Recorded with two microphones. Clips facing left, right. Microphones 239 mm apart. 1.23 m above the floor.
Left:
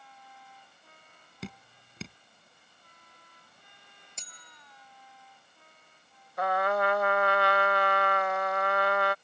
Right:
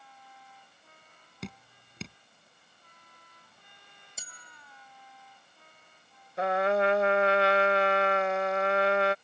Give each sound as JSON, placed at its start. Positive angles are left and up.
{"t": 1.4, "sound": "dripping", "side_deg": 0}
{"t": 4.2, "sound": "a bell", "side_deg": -5}
{"t": 6.4, "sound": "a trumpet", "side_deg": -25}